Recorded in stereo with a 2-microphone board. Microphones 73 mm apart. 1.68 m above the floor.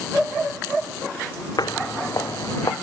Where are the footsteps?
65° left (ahead or behind); by 2.7 s 55° left (ahead or behind).